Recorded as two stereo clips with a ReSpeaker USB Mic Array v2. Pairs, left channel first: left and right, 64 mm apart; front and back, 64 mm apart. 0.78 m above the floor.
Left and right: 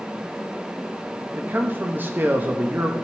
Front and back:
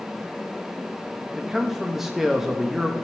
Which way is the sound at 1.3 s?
100° right.